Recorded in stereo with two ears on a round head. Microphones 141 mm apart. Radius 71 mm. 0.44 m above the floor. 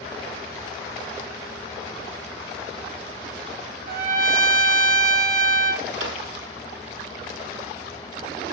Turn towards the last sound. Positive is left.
turn(degrees=-85)